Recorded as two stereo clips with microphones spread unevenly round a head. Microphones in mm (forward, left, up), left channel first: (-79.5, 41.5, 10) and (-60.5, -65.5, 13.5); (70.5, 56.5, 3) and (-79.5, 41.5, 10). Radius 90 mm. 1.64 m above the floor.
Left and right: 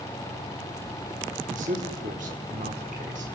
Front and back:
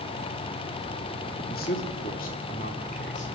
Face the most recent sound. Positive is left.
turn(degrees=-50)